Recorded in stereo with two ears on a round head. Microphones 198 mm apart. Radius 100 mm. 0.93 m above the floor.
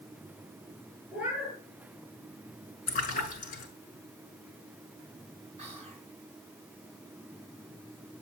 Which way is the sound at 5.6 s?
30° right (ahead or behind).